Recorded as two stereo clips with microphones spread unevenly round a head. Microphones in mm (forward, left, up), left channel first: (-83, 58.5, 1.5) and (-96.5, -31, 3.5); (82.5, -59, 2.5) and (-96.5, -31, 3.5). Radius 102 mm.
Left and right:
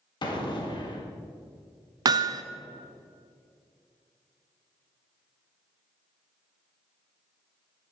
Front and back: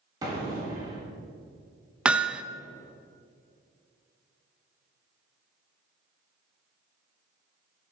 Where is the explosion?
100° left, 1.8 m.